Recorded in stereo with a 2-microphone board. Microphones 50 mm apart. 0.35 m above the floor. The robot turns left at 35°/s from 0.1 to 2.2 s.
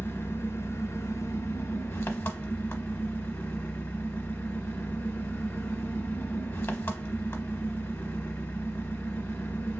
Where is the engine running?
125° left, 0.8 m; by 9.8 s 50° left, 0.8 m.